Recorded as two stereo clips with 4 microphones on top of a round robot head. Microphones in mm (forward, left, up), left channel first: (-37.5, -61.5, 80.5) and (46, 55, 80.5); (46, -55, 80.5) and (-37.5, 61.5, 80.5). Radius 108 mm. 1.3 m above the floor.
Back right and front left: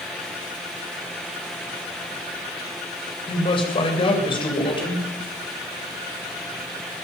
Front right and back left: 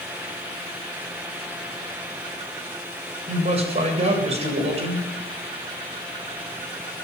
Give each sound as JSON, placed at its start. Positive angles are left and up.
{"t": 3.3, "sound": "a man speaking", "azimuth_deg": 175, "distance_m": 8.0}